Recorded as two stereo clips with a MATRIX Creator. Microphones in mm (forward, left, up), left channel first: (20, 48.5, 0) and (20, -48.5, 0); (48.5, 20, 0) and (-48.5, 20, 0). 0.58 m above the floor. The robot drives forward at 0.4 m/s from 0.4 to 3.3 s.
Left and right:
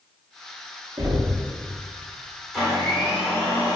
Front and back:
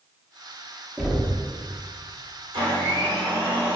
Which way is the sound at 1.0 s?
85° right.